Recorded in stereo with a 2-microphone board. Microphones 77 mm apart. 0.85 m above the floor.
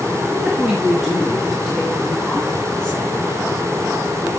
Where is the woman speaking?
15° right (ahead or behind), 2.5 m; by 3.3 s 15° left (ahead or behind), 5 m.